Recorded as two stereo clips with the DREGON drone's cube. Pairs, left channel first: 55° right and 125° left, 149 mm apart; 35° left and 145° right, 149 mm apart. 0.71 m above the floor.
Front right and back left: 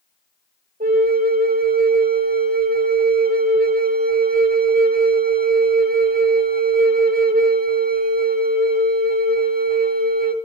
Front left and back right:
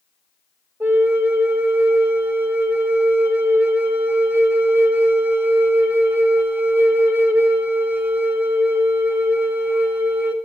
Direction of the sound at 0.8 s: 140° left.